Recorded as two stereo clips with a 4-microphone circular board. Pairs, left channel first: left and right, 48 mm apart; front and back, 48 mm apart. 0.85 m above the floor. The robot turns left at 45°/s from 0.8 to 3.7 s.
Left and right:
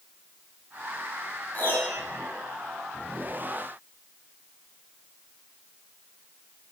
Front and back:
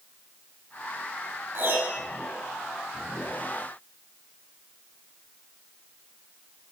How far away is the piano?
About 5 m.